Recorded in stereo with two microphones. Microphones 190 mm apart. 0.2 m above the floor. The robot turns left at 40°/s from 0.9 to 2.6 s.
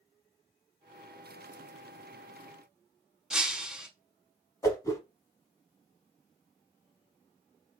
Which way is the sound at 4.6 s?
15° left (ahead or behind).